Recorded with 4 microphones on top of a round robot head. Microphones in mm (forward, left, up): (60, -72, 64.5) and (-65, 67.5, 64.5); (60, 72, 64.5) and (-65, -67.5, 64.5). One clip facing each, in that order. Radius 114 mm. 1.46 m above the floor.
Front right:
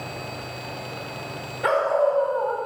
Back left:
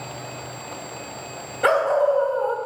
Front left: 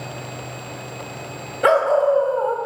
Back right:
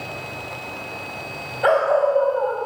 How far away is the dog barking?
About 1.8 m.